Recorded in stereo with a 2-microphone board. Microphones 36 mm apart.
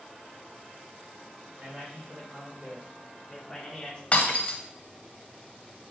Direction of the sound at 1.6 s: 55° right (ahead or behind).